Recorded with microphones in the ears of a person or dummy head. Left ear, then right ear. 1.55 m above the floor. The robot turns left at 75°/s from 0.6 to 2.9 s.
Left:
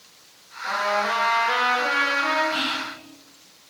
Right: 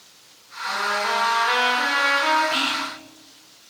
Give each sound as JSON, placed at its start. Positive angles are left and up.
{"t": 0.6, "sound": "a trumpet", "azimuth_deg": 35, "distance_m": 0.9}
{"t": 2.5, "sound": "whispering", "side_deg": -45, "distance_m": 0.7}